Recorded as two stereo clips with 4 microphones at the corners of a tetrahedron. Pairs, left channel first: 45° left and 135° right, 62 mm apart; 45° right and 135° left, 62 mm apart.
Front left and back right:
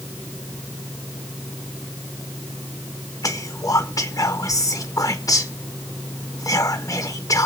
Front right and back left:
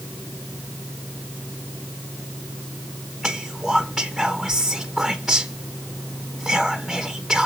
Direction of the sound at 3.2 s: 45° left.